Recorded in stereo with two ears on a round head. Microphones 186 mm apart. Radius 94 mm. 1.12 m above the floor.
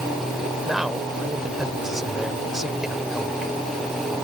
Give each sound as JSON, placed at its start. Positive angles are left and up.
{"t": 0.7, "sound": "a man speaking", "side_deg": 0}